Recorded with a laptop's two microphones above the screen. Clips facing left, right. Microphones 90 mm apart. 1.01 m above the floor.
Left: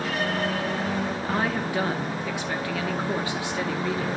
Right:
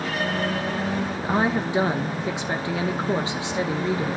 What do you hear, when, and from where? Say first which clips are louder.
1.2 s a woman speaking: right 3 dB; 20° right (ahead or behind), 1.0 m